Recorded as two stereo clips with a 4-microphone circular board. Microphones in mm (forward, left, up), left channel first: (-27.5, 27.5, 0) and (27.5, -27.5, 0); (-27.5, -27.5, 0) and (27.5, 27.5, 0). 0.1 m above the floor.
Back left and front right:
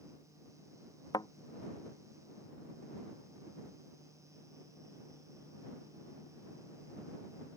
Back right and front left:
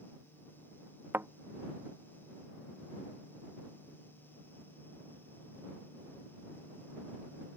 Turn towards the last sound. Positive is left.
turn(degrees=105)